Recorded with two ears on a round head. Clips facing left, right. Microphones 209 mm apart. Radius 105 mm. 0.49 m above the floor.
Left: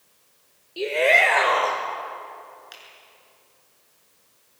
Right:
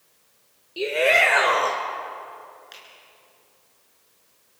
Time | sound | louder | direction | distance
0.8 | a shout | even | 5° right (ahead or behind) | 1.5 m
2.7 | a finger snap | even | 5° left (ahead or behind) | 6 m